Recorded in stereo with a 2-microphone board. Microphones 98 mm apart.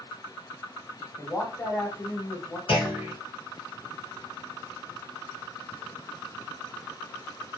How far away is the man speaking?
About 1.6 m.